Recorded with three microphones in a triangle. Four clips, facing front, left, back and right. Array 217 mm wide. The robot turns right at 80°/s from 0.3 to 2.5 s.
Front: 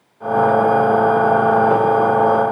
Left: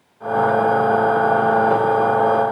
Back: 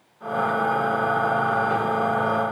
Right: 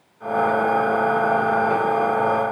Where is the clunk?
I don't hear a clunk.